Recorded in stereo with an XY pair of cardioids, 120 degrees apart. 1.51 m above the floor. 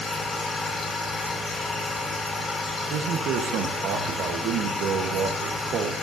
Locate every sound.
0.0 s a machine running: 30° left, 4 m
2.9 s a man speaking: 70° right, 1.2 m